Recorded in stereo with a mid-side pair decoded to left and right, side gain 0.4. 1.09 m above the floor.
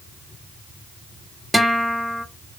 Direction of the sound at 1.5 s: 5° right.